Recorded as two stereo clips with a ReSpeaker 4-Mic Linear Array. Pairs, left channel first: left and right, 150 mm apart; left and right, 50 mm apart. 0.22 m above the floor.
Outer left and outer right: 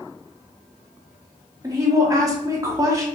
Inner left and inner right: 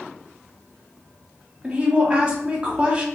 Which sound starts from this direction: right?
A woman speaking, at 1.6 s.